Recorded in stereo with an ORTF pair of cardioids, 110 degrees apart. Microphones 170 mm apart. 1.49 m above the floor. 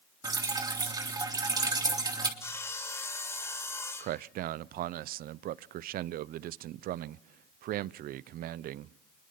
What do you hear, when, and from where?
0.2 s dripping: 25° right, 3.5 m
2.4 s sawing: 15° left, 3.5 m
4.0 s a man speaking: 60° right, 0.6 m